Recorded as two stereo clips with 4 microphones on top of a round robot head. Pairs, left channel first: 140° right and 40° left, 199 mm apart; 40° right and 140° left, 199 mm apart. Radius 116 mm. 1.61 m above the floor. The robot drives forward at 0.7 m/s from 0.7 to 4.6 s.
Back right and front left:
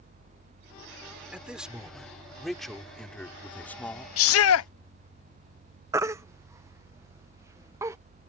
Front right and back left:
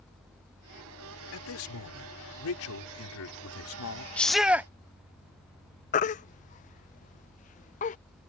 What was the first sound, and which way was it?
A man speaking, 45° right.